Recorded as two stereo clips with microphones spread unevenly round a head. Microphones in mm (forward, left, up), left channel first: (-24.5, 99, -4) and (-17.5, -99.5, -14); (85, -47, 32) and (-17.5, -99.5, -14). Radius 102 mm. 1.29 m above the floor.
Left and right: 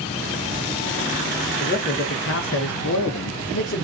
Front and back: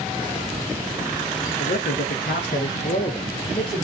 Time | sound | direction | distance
1.6 | a man speaking | 40° left | 1.1 m